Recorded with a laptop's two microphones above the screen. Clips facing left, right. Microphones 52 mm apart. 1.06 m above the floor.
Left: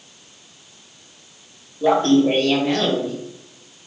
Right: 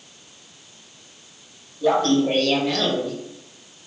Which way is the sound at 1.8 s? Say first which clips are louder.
Left 3 dB; 25° left (ahead or behind).